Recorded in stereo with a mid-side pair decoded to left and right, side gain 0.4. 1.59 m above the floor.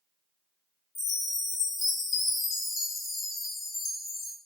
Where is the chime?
65° left, 1.1 m.